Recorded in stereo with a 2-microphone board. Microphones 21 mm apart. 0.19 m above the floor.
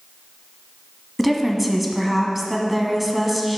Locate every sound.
1.2 s a woman speaking: 10° right (ahead or behind), 1.3 m